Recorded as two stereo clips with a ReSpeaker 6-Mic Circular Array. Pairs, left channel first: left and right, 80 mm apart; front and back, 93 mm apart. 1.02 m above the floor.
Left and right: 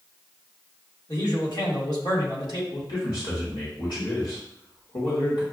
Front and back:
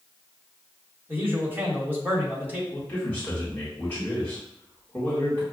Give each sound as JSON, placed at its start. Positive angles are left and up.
{"t": 1.1, "sound": "a man speaking", "azimuth_deg": 115, "distance_m": 2.0}
{"t": 2.7, "sound": "a man speaking", "azimuth_deg": 70, "distance_m": 1.7}